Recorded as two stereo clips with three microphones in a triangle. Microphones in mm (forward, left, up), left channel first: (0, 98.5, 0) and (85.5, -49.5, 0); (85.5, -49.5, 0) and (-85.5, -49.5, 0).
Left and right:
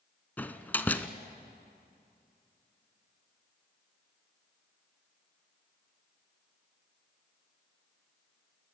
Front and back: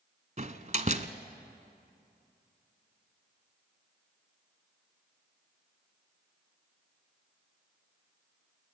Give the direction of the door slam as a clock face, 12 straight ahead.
5 o'clock.